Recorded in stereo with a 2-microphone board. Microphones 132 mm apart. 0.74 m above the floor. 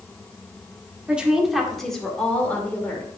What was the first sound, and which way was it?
A woman speaking, 10° right (ahead or behind).